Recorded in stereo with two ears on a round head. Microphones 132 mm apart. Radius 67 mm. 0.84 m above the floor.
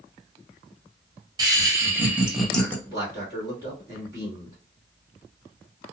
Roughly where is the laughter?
Right.